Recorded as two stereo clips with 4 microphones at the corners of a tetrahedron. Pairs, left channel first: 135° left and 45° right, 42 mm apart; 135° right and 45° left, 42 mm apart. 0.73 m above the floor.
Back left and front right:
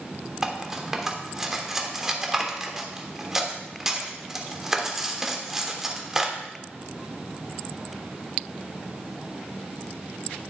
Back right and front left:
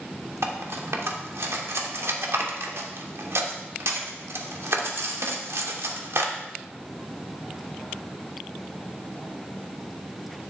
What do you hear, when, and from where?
0.4 s cutlery clinking: 35° left, 1.2 m